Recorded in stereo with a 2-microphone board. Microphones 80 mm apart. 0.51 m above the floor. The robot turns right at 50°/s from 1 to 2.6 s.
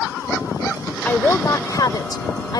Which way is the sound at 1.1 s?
25° left.